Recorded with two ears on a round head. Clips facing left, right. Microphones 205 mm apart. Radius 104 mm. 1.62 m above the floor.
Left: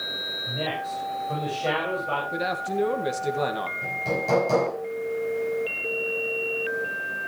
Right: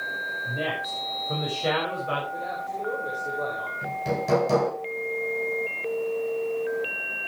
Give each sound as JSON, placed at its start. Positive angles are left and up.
{"t": 0.5, "sound": "a man speaking", "side_deg": -15, "distance_m": 6.0}
{"t": 2.3, "sound": "a man speaking", "side_deg": 90, "distance_m": 2.0}
{"t": 3.8, "sound": "hammering", "side_deg": -20, "distance_m": 7.5}